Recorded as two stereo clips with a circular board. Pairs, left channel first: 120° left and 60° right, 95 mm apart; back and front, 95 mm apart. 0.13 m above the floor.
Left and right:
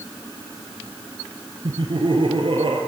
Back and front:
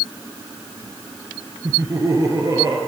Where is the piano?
No piano in this recording.